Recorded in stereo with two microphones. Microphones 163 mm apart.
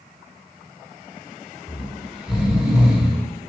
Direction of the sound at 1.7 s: 5° right (ahead or behind).